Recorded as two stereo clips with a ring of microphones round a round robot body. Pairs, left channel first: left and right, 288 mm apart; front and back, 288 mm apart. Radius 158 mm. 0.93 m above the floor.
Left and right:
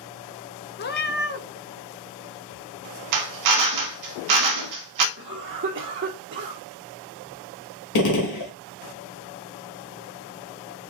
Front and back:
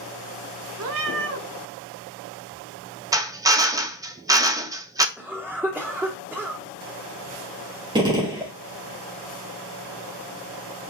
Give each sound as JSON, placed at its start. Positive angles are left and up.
{"t": 0.8, "sound": "a cat meowing", "azimuth_deg": 140, "distance_m": 0.6}
{"t": 3.1, "sound": "a drill", "azimuth_deg": -100, "distance_m": 0.8}
{"t": 5.2, "sound": "a cough", "azimuth_deg": -100, "distance_m": 1.1}
{"t": 8.0, "sound": "a gunshot", "azimuth_deg": 105, "distance_m": 1.3}